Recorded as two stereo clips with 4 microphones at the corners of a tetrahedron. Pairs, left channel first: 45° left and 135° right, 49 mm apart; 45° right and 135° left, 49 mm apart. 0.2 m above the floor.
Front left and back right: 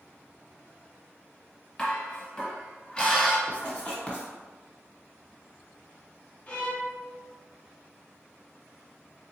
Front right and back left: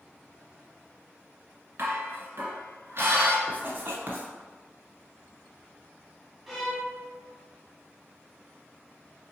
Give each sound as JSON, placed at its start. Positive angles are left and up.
{"t": 1.8, "sound": "dishes clattering", "azimuth_deg": 115, "distance_m": 1.4}
{"t": 3.5, "sound": "writing", "azimuth_deg": 110, "distance_m": 1.1}
{"t": 6.5, "sound": "a violin", "azimuth_deg": 45, "distance_m": 1.2}